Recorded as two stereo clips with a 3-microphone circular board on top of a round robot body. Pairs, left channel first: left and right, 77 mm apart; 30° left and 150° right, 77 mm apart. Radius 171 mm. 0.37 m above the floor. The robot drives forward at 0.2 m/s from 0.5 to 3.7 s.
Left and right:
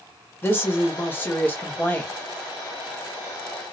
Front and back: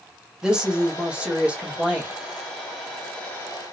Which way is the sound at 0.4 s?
135° left.